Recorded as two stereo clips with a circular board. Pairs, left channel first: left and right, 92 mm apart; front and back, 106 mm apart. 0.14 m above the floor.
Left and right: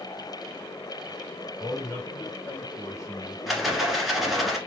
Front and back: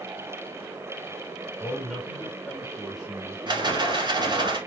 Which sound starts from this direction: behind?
A rattle, at 3.5 s.